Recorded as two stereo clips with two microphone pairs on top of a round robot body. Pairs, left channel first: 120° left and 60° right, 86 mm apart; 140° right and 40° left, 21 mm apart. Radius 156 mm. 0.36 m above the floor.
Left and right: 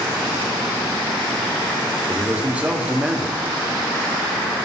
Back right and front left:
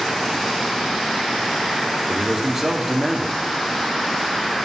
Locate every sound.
2.1 s a man speaking: 15° right, 1.5 m